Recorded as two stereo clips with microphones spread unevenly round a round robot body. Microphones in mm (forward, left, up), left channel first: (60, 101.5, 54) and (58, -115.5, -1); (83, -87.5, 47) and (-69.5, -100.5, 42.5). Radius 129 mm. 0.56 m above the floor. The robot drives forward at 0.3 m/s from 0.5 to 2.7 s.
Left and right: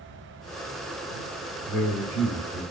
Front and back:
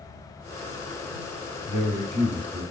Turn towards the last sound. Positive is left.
turn(degrees=140)